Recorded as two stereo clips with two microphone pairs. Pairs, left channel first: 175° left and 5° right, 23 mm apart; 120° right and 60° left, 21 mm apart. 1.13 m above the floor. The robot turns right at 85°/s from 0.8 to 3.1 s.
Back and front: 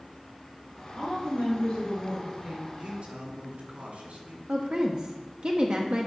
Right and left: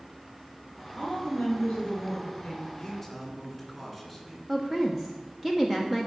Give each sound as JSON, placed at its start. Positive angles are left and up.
{"t": 0.9, "sound": "a woman speaking", "azimuth_deg": 150, "distance_m": 4.5}
{"t": 2.8, "sound": "a man speaking", "azimuth_deg": -60, "distance_m": 3.0}
{"t": 4.5, "sound": "a woman speaking", "azimuth_deg": -5, "distance_m": 0.9}